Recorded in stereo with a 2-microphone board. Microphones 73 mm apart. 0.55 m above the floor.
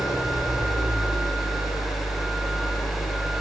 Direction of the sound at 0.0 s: 60° left (ahead or behind).